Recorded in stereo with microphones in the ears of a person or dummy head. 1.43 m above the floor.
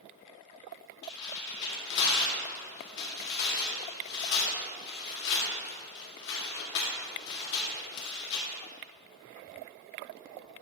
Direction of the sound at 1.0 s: 65° left (ahead or behind).